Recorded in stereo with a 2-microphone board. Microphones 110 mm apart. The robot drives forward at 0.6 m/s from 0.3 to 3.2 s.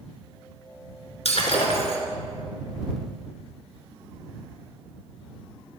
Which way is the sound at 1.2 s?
70° left (ahead or behind).